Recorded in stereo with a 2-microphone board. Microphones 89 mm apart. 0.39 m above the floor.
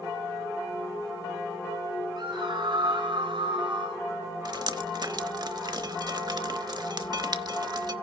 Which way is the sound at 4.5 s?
50° right (ahead or behind).